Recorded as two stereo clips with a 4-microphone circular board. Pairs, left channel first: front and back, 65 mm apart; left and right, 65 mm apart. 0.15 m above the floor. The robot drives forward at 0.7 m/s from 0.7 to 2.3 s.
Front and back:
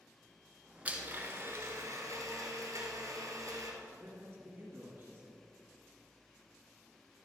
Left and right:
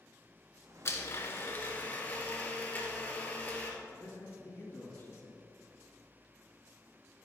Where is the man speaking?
135° left, 3 m.